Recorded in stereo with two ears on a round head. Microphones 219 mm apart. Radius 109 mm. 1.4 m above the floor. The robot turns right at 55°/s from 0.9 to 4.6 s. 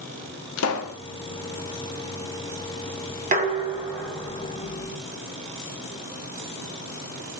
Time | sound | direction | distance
0.6 | a pop | 65° left (ahead or behind) | 0.6 m
3.3 | dishes clattering | 40° right | 0.8 m